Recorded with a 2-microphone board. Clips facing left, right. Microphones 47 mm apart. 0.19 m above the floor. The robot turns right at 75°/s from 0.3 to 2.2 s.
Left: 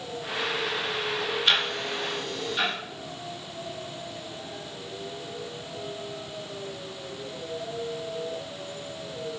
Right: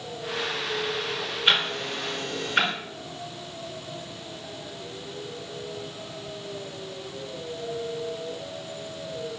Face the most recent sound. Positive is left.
turn(degrees=-60)  # may be behind; listen again after turning